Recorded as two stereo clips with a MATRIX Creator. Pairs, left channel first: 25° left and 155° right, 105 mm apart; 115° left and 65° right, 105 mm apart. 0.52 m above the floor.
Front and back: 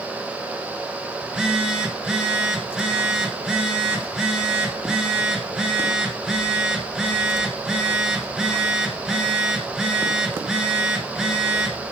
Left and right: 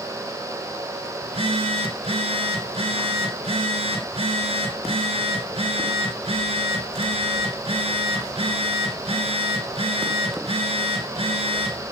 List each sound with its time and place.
1.2 s a phone buzzing: 75° right, 1.4 m